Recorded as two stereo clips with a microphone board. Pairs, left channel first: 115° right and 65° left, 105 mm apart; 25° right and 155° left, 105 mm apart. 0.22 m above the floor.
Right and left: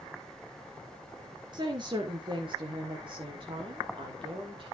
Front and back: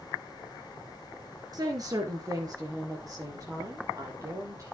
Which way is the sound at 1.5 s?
110° left.